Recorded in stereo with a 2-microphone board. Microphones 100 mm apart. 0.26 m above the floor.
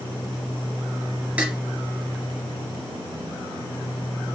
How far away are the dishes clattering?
About 2.5 m.